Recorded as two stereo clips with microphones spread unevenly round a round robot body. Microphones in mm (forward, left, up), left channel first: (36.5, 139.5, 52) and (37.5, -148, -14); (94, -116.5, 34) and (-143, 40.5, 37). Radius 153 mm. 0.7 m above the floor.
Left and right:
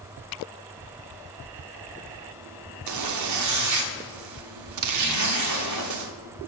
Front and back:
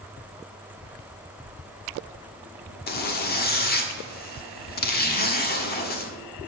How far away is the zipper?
About 1.2 m.